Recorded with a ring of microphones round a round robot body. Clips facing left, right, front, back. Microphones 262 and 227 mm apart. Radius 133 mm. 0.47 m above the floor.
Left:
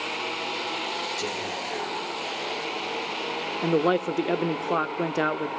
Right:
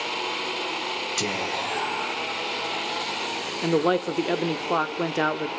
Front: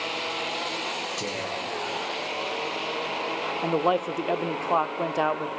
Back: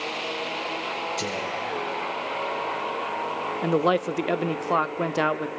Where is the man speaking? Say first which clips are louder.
Right 1 dB, back 3 dB; straight behind, 0.7 m.